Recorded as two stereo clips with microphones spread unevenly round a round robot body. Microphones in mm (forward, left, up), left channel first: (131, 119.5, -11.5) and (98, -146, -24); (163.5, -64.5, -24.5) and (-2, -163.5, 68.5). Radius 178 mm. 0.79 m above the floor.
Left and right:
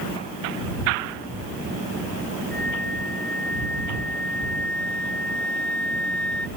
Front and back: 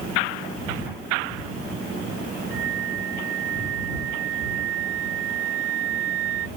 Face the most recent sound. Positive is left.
turn(degrees=170)